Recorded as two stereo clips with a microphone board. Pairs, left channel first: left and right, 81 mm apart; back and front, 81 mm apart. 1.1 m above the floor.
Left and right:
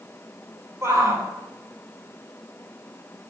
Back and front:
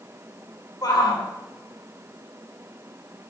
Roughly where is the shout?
Behind right.